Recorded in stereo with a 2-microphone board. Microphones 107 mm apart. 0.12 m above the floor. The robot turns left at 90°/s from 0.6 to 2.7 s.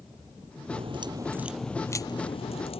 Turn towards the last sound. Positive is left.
turn(degrees=80)